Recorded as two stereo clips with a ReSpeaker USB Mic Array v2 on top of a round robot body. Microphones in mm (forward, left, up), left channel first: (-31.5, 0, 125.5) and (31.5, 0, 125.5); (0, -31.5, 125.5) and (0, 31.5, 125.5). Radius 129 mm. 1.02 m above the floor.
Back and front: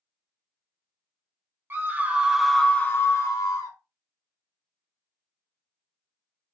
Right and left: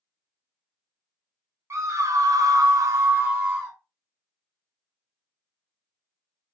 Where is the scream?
50° left, 0.8 m; by 3.8 s 160° left, 0.8 m.